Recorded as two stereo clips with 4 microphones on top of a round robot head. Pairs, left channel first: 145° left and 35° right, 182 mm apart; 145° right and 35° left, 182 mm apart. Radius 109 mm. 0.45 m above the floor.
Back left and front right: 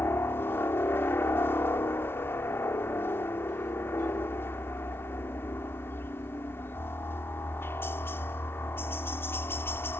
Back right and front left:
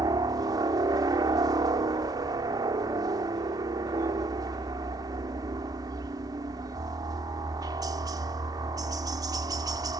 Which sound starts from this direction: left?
A helicopter, at 0.0 s.